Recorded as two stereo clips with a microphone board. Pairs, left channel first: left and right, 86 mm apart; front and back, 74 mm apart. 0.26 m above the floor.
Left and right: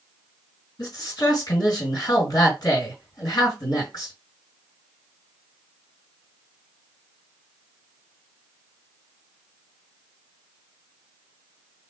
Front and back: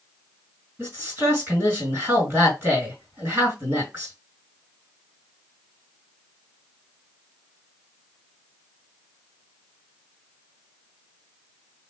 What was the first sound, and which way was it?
A man speaking, 125° left.